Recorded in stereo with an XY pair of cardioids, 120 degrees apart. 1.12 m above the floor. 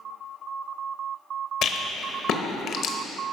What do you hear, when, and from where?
1.6 s a rattle: 65° left, 0.9 m